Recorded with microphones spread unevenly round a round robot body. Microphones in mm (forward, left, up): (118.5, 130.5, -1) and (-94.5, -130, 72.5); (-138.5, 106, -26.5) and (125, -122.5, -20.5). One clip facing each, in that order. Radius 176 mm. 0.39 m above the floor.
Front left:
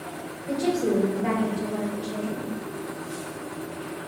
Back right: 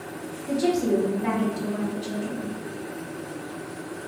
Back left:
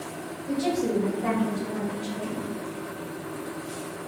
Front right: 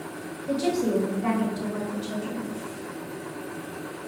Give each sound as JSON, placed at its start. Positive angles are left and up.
{"t": 0.5, "sound": "a woman speaking", "azimuth_deg": -50, "distance_m": 1.6}